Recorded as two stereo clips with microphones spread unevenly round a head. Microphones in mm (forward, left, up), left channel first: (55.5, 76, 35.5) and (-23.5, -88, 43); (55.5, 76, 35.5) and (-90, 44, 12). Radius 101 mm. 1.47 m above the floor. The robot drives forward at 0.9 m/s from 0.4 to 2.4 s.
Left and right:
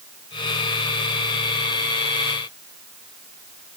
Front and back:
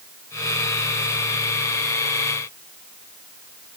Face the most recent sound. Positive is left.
No sound to turn to.